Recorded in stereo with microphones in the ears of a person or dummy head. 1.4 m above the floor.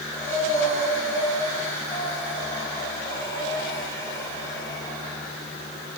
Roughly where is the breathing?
Centre.